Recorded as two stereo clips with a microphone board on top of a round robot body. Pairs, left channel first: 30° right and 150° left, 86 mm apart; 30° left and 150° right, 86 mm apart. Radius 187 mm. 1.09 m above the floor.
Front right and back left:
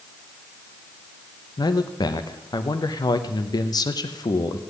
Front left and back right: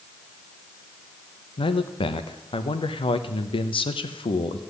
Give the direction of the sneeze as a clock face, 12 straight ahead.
I don't hear a sneeze.